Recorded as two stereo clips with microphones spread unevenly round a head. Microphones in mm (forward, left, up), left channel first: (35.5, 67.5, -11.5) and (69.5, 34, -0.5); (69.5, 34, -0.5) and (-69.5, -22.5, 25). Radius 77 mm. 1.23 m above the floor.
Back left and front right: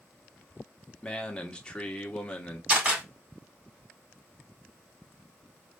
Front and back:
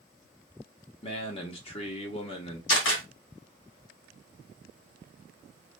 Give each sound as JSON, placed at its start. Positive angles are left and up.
{"t": 1.0, "sound": "a man speaking", "azimuth_deg": 70, "distance_m": 1.2}
{"t": 2.7, "sound": "a camera shutter", "azimuth_deg": 20, "distance_m": 3.5}